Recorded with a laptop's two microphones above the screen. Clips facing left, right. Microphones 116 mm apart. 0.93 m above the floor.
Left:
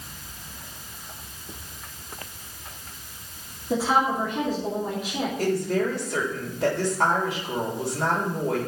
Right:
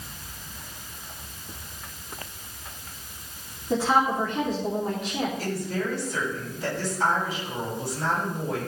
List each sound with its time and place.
3.7 s a woman speaking: 10° left (ahead or behind), 2.5 m
5.4 s a woman speaking: 80° left, 3.5 m